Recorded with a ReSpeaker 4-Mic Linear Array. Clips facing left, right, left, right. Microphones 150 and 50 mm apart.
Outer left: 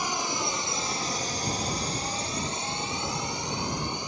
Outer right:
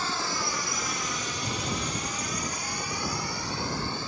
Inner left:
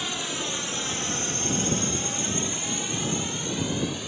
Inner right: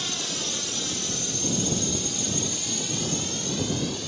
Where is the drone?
15° left (ahead or behind).